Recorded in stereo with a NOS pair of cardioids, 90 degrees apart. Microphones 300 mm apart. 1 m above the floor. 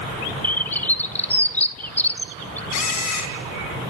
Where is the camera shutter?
70° left, 3 m.